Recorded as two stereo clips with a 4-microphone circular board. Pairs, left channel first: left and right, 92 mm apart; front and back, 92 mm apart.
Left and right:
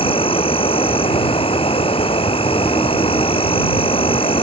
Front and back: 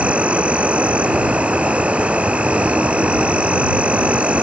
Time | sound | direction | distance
0.0 | an insect | 105° left | ?